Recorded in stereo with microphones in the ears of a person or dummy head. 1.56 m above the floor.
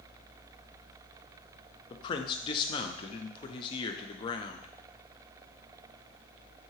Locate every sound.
1.9 s a man speaking: 30° left (ahead or behind), 0.7 m